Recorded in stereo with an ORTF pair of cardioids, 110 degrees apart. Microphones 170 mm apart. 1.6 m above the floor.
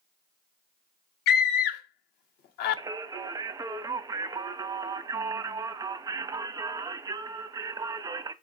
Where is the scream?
70° left, 0.9 m.